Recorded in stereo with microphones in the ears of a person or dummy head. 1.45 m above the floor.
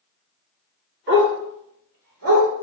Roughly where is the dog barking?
Right.